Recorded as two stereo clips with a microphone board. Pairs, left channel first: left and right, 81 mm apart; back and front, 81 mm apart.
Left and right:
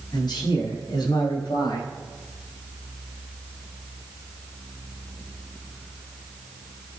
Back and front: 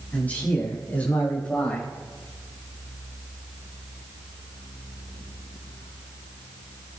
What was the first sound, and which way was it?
A man speaking, 110° left.